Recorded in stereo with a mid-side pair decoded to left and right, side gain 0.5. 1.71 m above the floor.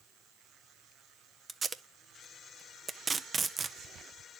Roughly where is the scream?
No scream in this recording.